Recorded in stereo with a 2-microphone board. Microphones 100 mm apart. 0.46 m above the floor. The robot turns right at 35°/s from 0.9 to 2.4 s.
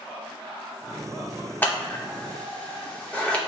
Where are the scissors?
20° left (ahead or behind), 0.9 m; by 3.4 s 15° left (ahead or behind), 0.9 m.